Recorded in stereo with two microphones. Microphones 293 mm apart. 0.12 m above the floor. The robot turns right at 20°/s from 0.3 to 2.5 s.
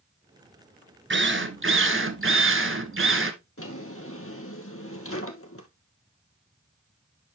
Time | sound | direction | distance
1.1 | a drill | 40° right (ahead or behind) | 1.0 m
3.6 | a drawer | 50° left (ahead or behind) | 1.3 m